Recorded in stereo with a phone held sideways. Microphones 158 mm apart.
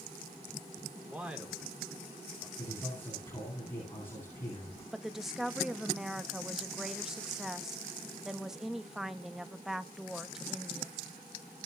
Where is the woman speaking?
Centre (ahead or behind), 1.1 m.